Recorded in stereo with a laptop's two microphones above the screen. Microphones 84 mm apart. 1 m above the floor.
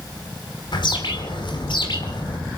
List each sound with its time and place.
0.7 s a bird: 60° left (ahead or behind), 2.5 m